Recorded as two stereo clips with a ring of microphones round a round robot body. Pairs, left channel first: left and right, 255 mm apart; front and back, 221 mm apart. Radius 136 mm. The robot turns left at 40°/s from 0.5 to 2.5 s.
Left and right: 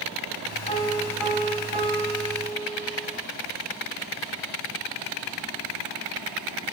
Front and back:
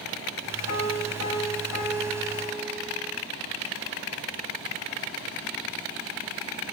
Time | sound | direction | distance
0.7 | a piano | 20° left | 2.5 m